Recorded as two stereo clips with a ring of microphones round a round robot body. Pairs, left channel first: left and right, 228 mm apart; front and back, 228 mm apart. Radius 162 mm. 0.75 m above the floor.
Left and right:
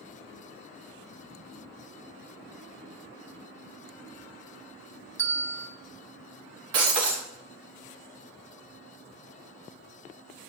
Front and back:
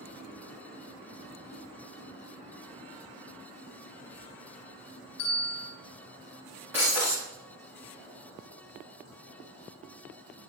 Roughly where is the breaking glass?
Right.